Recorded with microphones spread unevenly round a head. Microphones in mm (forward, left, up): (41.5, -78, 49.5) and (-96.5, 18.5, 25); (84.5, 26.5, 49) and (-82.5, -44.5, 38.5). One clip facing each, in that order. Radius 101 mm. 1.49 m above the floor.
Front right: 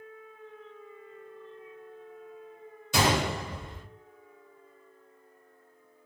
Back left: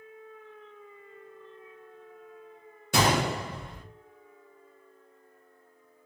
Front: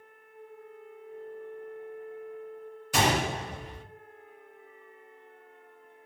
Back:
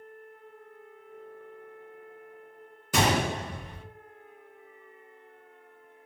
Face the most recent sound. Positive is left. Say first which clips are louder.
# back left 1 dB, back 1 dB
turn(degrees=-170)